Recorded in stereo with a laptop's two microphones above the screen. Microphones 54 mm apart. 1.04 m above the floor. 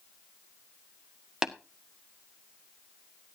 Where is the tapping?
10° right (ahead or behind), 1.7 m.